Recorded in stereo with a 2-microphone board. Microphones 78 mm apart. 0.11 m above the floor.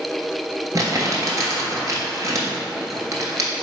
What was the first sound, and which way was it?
Crumpling, 45° right (ahead or behind).